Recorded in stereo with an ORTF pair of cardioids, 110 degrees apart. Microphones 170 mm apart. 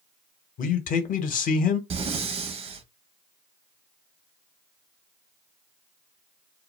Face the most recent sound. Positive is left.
turn(degrees=-35)